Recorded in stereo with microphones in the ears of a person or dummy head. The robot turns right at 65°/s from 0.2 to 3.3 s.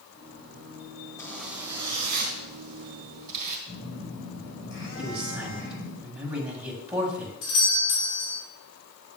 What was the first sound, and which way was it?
A zipper, 165° left.